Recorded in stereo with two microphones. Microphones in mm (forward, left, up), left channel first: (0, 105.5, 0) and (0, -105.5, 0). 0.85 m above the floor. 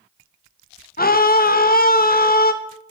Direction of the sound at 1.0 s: 45° left (ahead or behind).